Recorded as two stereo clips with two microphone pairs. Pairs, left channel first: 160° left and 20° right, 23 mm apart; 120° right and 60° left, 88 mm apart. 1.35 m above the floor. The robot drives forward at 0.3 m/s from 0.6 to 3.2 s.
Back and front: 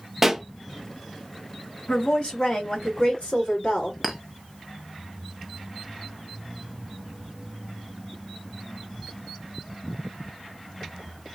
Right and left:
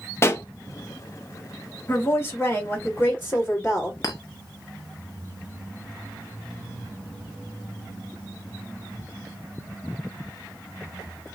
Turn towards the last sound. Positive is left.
turn(degrees=-105)